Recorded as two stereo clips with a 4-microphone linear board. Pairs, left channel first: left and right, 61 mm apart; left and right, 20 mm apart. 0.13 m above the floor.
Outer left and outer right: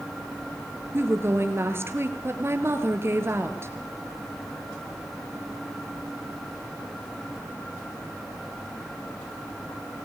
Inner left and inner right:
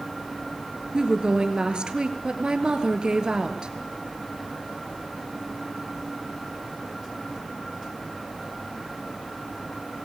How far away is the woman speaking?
About 2.5 m.